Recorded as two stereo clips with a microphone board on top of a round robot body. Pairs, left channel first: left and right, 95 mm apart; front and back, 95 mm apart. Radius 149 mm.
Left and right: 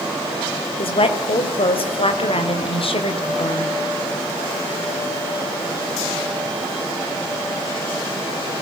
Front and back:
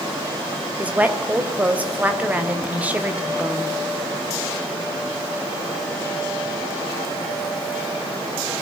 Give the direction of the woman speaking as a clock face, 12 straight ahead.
8 o'clock.